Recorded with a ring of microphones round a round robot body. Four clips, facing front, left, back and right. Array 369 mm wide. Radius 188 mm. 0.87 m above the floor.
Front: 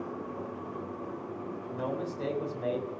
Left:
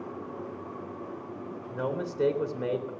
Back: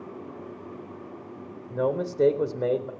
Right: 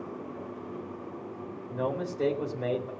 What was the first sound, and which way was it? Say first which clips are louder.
A man speaking: right 1 dB, back 9 dB; 165° left.